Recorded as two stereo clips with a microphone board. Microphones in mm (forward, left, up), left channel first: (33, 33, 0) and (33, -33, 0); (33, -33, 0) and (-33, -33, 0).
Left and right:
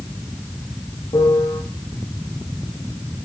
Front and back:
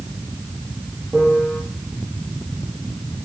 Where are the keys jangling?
I don't hear keys jangling.